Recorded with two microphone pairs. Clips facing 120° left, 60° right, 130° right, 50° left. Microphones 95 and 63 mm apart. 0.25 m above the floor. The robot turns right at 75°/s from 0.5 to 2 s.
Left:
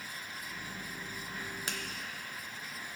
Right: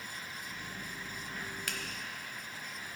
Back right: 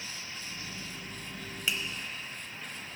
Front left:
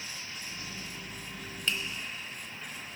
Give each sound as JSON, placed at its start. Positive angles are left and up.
{"t": 1.7, "sound": "a finger snap", "azimuth_deg": 160, "distance_m": 0.9}